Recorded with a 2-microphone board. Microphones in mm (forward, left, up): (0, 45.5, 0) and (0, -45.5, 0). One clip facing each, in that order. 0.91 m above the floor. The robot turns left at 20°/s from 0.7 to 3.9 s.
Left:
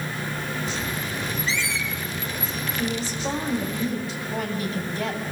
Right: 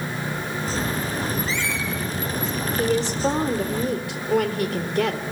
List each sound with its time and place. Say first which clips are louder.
1.5 s a squeak: right 1 dB; 55° right (ahead or behind), 4 m; by 1.9 s 45° right (ahead or behind), 4 m
2.8 s a woman speaking: right 7 dB; 75° right (ahead or behind), 3.5 m; by 5.3 s 70° right (ahead or behind), 3.5 m